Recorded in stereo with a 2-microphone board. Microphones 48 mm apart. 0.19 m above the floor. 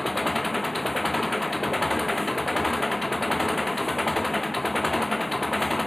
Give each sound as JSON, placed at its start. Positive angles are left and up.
{"t": 0.0, "sound": "an engine running", "side_deg": 5}